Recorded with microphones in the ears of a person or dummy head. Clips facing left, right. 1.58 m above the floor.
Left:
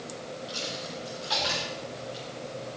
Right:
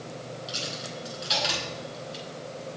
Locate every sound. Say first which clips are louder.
0.5 s a dropped coin: even; 40° right (ahead or behind), 3 m